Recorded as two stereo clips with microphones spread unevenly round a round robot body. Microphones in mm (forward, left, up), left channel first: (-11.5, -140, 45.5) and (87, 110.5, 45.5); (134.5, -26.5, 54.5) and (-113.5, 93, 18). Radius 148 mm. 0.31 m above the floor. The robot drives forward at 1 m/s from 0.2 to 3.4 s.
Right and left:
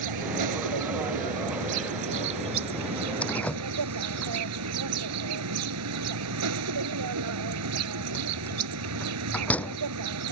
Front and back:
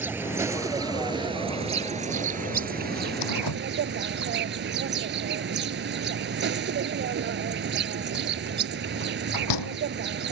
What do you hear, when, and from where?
0.0 s an insect: 70° left; by 10.3 s 105° left
3.2 s a door slam: 25° right